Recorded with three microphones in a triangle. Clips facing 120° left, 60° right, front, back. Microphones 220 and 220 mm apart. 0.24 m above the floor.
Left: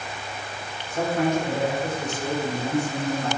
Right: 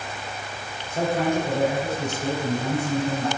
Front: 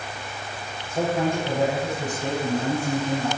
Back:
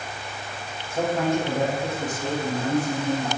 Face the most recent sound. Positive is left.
turn(degrees=-105)